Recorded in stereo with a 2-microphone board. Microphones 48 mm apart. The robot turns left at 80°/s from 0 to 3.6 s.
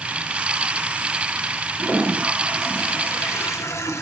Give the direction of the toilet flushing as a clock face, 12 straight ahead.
4 o'clock.